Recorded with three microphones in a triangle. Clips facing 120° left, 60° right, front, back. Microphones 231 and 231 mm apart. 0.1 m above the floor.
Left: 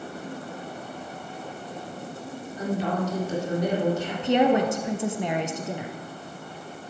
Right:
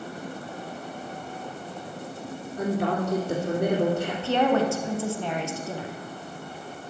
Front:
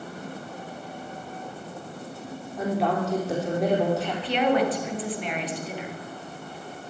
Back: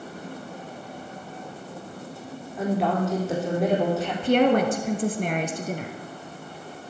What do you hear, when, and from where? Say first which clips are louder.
2.6 s a woman speaking: right 1 dB, back 1 dB; 90° right, 4.5 m
4.2 s a woman speaking: left 3 dB, back 4 dB; 175° right, 1.9 m